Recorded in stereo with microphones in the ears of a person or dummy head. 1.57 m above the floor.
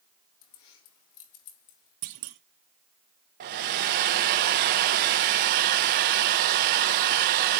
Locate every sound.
0.4 s keys jangling: 70° left (ahead or behind), 1.8 m; by 1.9 s 75° left (ahead or behind), 3 m
2.0 s a clunk: 55° right (ahead or behind), 1.0 m
3.4 s a hair dryer: 55° right (ahead or behind), 1.1 m